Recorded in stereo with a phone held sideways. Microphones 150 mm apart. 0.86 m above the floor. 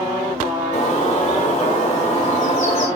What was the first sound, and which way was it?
A bird, 50° left (ahead or behind).